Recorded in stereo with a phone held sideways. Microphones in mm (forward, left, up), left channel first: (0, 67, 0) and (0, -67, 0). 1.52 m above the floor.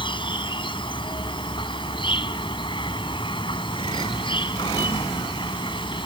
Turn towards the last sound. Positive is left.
turn(degrees=40)  # may be behind; listen again after turning